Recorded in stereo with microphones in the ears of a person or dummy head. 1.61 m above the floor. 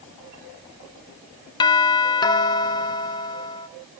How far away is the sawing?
I don't hear sawing.